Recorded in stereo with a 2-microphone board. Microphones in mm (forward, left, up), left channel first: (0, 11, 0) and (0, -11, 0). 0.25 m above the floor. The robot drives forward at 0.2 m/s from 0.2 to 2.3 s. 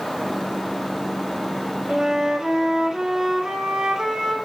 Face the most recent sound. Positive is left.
turn(degrees=-25)  # may be behind; listen again after turning